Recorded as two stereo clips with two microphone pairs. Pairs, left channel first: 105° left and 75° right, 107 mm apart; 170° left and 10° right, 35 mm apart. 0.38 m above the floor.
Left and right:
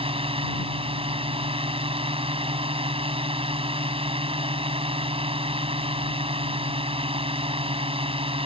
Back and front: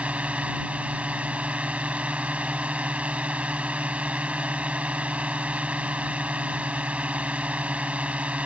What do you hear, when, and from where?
0.0 s a drone: 60° right